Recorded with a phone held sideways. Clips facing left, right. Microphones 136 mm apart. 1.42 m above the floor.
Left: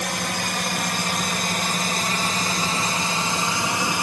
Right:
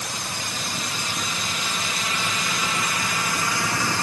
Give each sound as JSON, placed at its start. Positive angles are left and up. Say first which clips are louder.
{"t": 0.0, "sound": "a drone", "louder": "left 6 dB", "side_deg": 60}